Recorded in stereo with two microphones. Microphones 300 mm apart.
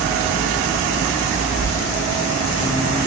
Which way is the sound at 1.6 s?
85° left.